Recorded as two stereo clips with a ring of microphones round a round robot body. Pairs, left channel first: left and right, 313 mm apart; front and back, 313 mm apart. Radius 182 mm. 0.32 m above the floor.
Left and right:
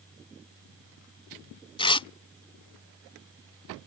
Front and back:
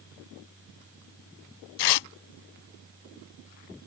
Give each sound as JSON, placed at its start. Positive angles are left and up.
{"t": 1.8, "sound": "tearing paper", "azimuth_deg": 15}